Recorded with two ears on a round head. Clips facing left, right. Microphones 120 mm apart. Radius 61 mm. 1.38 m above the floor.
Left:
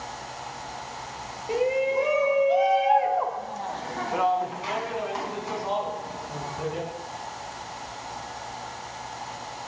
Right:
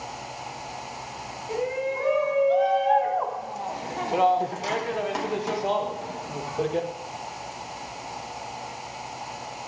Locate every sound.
1.5 s a shout: 30° left (ahead or behind), 2.5 m; by 6.9 s 85° right, 2.5 m